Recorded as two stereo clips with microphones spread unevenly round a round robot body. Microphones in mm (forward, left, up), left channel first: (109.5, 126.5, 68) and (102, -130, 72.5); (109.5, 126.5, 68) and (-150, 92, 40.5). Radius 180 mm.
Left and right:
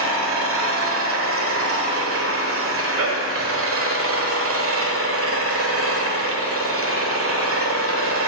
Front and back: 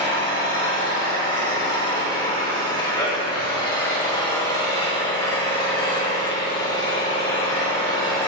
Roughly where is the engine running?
Right.